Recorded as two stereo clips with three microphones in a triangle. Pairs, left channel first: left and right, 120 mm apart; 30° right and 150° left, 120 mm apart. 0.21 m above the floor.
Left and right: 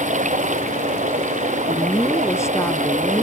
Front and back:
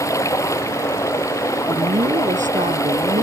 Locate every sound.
0.0 s running water: 95° right
1.7 s a woman speaking: 155° left